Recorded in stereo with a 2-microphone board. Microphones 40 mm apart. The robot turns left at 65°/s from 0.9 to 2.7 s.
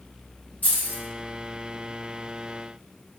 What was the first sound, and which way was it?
Keys jangling, 45° left (ahead or behind).